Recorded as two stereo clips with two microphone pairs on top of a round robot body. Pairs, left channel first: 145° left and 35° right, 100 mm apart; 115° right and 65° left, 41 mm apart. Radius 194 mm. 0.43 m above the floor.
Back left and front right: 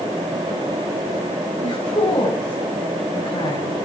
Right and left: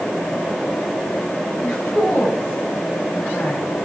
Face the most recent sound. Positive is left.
turn(degrees=170)